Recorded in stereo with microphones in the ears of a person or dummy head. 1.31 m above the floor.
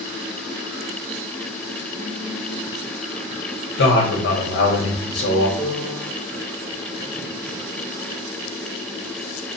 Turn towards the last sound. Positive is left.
turn(degrees=10)  # may be behind; listen again after turning